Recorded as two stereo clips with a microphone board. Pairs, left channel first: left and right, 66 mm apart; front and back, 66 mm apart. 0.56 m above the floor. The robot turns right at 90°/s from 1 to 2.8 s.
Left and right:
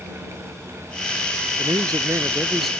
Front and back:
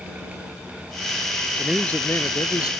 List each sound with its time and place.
1.6 s a man speaking: 95° right; by 2.7 s 5° left